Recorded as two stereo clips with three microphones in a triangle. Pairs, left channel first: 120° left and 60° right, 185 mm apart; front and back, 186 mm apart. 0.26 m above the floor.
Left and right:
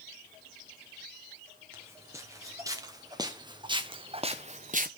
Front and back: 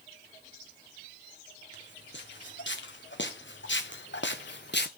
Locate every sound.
1.7 s footsteps: 15° left, 3.5 m; by 4.9 s 20° right, 1.1 m